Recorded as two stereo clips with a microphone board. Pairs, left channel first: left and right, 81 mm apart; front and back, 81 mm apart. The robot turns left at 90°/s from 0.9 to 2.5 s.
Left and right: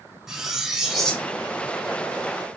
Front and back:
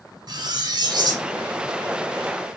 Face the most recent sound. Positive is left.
turn(degrees=40)